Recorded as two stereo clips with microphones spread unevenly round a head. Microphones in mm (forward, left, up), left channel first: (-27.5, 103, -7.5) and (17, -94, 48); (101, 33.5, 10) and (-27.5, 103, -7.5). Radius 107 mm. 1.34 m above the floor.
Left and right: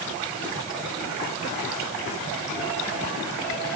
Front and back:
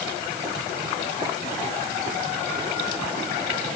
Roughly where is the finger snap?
No finger snap in this recording.